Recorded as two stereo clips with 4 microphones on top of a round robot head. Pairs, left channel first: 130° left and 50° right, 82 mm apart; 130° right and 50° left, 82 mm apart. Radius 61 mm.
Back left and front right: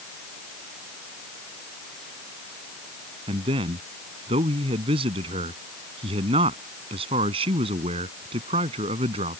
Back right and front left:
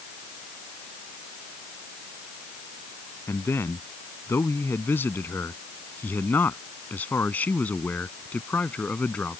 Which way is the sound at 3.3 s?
65° right.